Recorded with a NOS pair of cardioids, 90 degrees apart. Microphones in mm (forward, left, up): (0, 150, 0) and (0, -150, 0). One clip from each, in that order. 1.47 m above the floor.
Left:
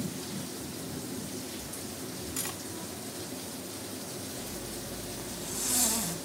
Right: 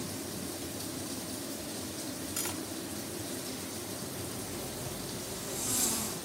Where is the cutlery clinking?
5° left, 1.7 m.